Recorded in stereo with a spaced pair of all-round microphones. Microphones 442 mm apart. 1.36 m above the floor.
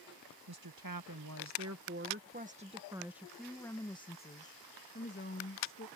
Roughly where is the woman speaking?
Right.